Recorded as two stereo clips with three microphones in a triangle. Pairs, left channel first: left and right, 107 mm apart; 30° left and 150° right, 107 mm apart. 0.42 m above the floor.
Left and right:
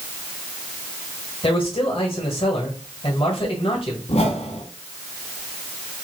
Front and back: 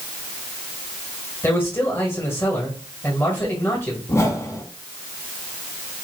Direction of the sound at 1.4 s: 95° left.